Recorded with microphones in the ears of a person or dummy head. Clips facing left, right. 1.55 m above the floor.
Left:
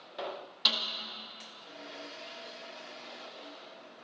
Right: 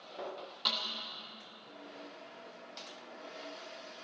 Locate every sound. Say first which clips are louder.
0.7 s a snare drum: left 3 dB; 5° left (ahead or behind), 1.0 m